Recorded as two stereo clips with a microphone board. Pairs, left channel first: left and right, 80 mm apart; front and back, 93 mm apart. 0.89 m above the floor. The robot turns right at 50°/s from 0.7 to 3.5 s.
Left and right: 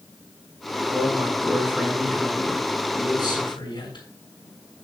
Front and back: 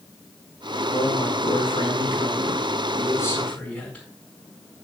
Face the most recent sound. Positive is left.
turn(degrees=80)